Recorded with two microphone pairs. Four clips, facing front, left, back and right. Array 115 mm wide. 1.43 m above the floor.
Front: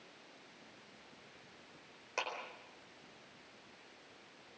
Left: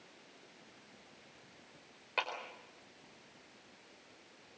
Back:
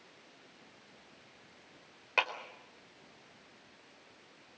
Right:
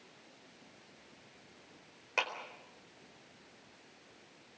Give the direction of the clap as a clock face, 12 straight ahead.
6 o'clock.